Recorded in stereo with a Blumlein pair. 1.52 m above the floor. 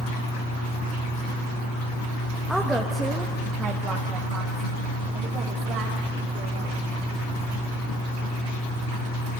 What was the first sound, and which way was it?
A woman speaking, straight ahead.